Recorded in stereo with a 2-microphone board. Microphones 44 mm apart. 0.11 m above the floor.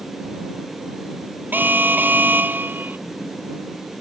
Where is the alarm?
50° right (ahead or behind).